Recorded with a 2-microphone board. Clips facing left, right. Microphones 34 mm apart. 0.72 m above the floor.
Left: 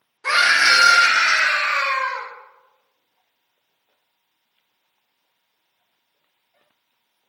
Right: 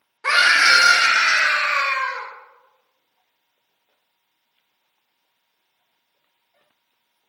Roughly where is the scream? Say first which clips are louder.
Right 1 dB; right.